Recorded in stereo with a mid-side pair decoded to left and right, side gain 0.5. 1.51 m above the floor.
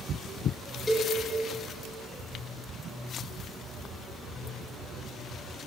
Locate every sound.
0.9 s a cowbell: 20° left, 5 m